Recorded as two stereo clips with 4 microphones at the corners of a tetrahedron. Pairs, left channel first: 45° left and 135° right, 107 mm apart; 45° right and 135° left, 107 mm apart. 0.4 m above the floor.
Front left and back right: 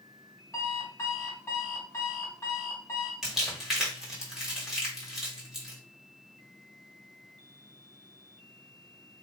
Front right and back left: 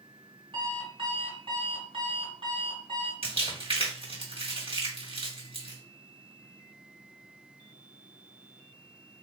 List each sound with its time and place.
0.5 s an alarm clock: 110° left, 1.9 m
3.2 s crumpling: 140° left, 2.0 m